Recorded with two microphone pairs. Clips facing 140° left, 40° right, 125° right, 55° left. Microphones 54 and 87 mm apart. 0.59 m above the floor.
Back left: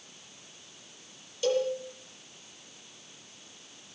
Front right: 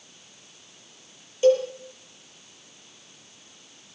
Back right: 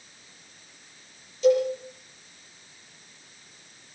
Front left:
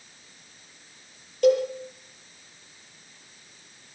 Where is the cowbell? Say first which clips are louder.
Front right 8 dB, even; 20° left, 9 m.